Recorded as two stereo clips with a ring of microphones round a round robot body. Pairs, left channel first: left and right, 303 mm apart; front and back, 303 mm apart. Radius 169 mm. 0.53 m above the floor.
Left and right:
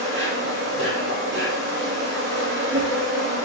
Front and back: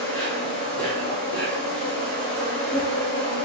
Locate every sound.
0.0 s an insect: 80° right, 1.1 m